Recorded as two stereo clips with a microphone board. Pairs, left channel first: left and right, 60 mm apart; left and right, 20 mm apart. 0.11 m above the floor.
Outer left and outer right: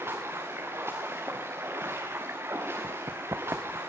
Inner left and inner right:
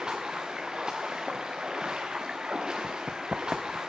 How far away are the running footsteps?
About 0.8 m.